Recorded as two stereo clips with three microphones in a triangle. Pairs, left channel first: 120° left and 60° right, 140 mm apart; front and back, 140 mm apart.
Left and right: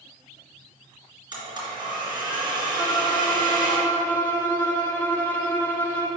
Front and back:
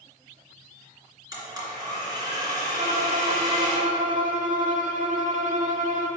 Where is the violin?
160° right, 1.3 m.